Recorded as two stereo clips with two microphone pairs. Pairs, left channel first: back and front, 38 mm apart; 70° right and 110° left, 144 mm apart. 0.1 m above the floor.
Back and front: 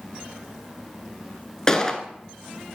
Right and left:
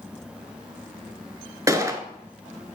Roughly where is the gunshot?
Behind left.